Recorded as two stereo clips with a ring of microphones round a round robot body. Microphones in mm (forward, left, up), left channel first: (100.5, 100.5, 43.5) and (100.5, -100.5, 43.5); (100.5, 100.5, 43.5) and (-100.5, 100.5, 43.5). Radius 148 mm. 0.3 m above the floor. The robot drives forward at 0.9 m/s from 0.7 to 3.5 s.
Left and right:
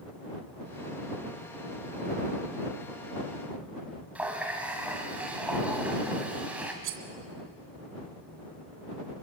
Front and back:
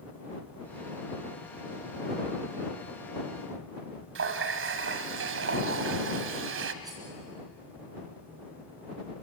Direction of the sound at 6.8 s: 105° right.